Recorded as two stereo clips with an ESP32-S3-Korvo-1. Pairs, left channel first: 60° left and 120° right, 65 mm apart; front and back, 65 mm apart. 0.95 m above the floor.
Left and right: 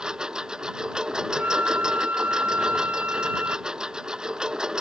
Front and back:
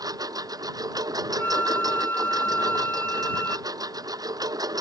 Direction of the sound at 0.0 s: 160° left.